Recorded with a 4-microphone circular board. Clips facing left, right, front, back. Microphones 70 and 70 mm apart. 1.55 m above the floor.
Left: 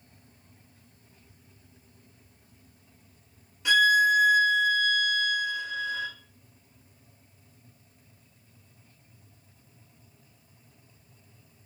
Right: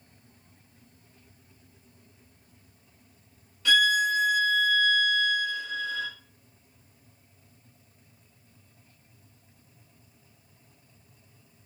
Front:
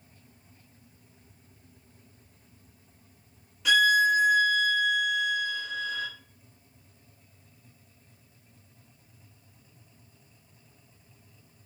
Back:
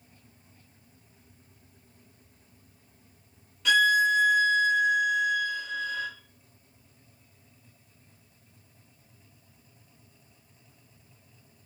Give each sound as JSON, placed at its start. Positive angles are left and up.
{"t": 3.6, "sound": "a violin", "azimuth_deg": 80, "distance_m": 0.9}